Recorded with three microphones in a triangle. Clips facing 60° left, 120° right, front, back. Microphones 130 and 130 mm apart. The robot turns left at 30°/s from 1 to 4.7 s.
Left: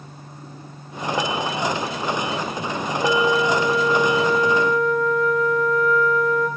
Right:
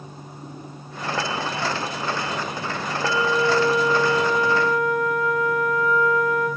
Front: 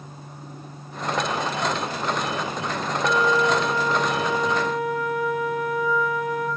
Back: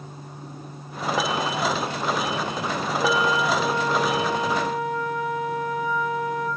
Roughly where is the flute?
Behind.